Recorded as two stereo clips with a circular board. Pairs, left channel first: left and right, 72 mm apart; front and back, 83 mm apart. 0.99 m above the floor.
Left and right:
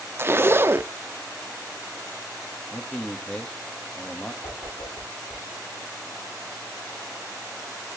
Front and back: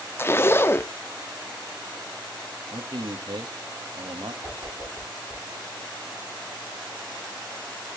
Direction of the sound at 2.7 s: 165° left.